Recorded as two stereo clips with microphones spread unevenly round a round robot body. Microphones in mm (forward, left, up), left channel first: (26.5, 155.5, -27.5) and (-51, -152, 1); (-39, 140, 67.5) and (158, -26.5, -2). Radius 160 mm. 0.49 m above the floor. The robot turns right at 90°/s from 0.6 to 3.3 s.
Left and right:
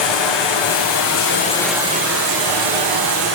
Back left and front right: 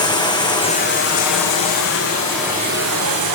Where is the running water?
65° left, 6.5 m; by 3.3 s 50° right, 6.5 m.